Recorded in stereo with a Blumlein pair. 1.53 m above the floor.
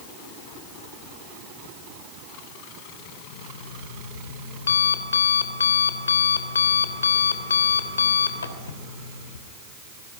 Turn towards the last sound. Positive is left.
turn(degrees=70)